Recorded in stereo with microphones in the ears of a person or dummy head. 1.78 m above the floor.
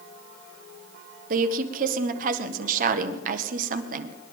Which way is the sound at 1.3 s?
55° right (ahead or behind).